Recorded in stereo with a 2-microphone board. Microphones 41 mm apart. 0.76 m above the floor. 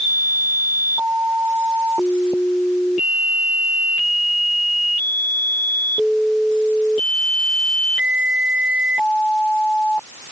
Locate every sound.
Only background noise.